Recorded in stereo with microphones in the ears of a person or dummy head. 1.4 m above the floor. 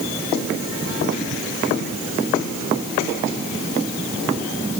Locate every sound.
Only background noise.